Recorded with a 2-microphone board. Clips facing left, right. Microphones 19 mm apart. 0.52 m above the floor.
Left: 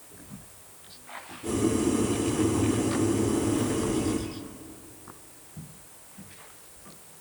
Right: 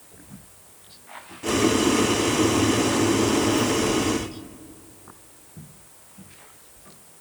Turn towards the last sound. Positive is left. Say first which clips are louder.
# right 5 dB
turn(degrees=-65)  # may be behind; listen again after turning